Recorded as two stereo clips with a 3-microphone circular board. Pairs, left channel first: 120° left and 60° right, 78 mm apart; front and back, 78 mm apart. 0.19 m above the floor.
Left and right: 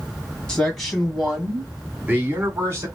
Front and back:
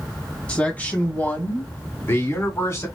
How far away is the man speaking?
About 1.7 m.